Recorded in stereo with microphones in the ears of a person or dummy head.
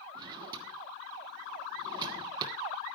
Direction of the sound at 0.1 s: 20° right (ahead or behind).